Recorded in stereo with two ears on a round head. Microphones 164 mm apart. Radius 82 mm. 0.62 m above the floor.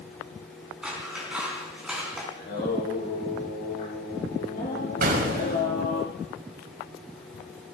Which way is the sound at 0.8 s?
5° right (ahead or behind).